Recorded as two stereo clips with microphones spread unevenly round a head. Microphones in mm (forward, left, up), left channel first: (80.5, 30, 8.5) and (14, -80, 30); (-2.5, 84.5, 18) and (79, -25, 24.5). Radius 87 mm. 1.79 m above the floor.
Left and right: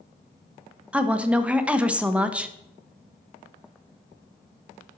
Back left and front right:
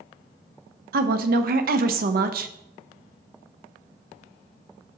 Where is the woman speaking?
40° right, 0.9 m.